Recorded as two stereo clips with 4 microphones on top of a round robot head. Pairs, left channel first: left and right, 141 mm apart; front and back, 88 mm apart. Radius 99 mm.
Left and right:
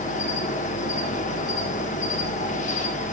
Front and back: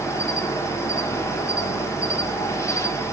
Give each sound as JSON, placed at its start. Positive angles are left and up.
{"t": 0.0, "sound": "an insect", "azimuth_deg": 55, "distance_m": 1.6}